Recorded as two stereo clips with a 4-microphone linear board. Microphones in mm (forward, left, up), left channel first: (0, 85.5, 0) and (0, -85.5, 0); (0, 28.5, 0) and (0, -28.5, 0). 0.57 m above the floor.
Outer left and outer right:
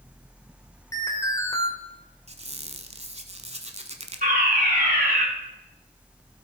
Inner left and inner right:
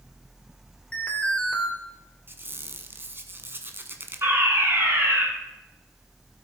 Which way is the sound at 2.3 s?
35° right (ahead or behind).